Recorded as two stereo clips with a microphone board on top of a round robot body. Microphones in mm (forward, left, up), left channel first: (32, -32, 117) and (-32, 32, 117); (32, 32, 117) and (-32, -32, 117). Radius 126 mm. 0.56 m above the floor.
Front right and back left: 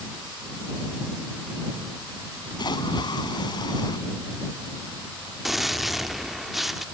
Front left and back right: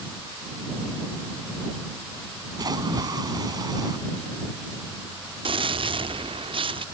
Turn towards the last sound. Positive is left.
turn(degrees=-135)